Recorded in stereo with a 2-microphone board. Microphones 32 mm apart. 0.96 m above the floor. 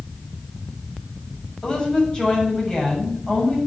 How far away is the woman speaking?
About 6.5 m.